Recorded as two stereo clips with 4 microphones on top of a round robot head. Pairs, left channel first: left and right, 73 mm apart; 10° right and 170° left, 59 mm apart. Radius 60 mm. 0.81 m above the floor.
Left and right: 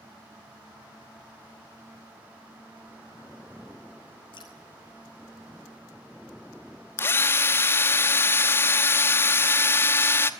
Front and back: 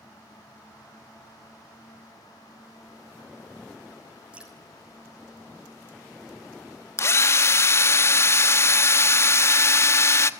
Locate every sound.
4.3 s dripping: 95° left, 6 m
7.0 s a drill: 30° left, 1.0 m